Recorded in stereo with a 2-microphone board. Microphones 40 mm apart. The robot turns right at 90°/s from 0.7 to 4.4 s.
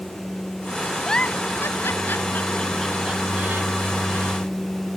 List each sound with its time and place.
1.1 s a giggle: 15° left (ahead or behind); by 4.4 s 45° right (ahead or behind)